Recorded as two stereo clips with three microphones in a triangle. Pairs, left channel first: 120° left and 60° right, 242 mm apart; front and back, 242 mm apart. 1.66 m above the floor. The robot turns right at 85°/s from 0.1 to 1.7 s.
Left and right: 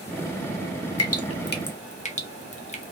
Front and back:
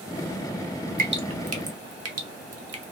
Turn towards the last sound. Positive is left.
turn(degrees=-175)